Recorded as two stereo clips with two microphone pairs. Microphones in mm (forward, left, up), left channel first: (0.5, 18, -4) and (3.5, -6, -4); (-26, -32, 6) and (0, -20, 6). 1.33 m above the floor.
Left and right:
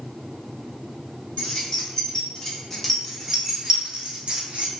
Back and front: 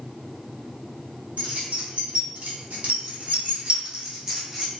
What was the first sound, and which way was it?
Keys jangling, 55° left.